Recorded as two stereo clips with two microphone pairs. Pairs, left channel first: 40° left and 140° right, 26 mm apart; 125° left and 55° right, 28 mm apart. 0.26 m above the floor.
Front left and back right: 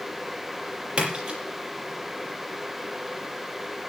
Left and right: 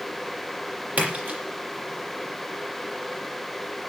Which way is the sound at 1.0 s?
80° right.